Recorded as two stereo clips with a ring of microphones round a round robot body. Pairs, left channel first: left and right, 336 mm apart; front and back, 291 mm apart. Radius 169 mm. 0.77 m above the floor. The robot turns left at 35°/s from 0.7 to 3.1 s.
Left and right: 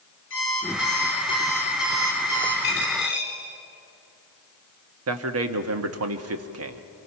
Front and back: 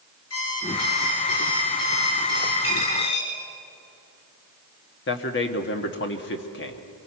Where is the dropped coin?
30° left, 8.5 m; by 3.3 s 15° left, 8.5 m.